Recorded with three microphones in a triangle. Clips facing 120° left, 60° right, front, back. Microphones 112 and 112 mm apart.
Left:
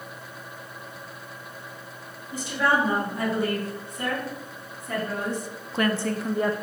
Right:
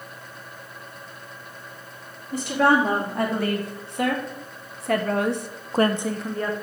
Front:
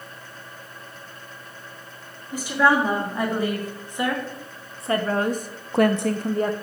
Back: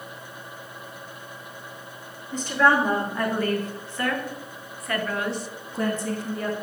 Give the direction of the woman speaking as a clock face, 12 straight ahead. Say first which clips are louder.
Right 5 dB, front 1 dB; 3 o'clock.